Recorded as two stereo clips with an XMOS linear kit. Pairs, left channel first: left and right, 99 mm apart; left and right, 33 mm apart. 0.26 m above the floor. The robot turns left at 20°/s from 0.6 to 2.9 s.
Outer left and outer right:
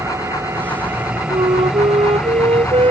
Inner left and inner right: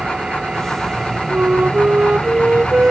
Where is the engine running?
150° right; by 2.9 s 160° left.